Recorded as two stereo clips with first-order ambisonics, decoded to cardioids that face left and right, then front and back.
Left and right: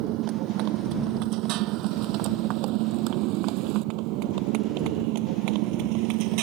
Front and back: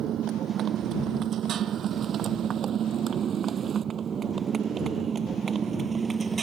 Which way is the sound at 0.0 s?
125° right.